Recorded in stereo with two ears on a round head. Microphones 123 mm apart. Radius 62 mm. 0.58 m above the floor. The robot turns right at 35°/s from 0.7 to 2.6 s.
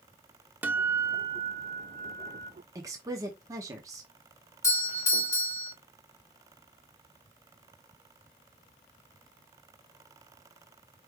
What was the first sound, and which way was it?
A guitar, 165° right.